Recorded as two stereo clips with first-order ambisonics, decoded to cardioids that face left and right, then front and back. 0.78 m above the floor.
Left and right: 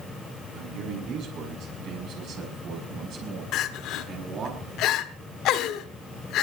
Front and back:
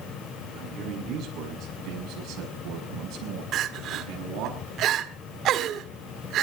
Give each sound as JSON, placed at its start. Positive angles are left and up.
{"t": 0.5, "sound": "a man speaking", "azimuth_deg": -125, "distance_m": 6.5}
{"t": 3.5, "sound": "crying", "azimuth_deg": 130, "distance_m": 1.4}